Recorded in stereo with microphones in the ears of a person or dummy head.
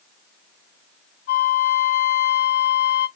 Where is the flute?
50° left (ahead or behind), 1.3 m.